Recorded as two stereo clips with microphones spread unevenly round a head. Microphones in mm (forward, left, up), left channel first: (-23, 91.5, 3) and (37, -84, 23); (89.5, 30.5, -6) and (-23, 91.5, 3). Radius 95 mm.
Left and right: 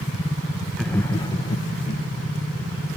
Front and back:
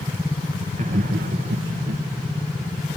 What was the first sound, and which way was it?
Laughter, 160° right.